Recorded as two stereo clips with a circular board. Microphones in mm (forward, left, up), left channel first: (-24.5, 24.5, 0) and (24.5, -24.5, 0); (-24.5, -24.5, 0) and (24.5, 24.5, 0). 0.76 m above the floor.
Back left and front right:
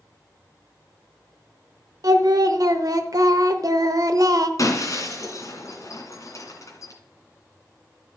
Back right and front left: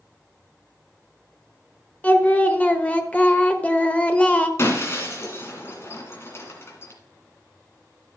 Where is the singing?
65° right, 0.8 m.